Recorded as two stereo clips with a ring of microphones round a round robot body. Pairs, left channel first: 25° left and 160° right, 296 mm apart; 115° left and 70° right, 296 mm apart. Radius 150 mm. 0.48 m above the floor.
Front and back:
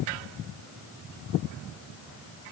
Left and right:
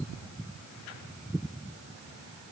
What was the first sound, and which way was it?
Only background noise.